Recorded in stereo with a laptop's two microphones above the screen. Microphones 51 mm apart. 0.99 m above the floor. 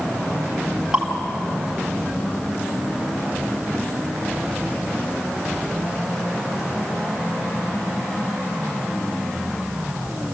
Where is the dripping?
15° right (ahead or behind), 4 m.